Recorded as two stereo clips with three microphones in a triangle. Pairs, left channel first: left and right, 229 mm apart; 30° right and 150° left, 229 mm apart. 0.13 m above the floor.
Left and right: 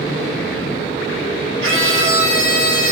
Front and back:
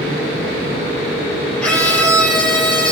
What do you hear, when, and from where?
1.6 s a scream: 115° right, 4 m